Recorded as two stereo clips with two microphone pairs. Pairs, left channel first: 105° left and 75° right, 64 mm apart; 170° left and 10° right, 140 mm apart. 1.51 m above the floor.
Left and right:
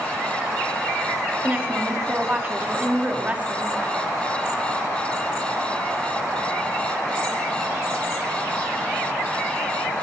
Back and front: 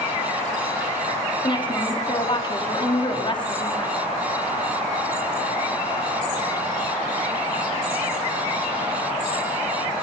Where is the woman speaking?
140° right, 4 m.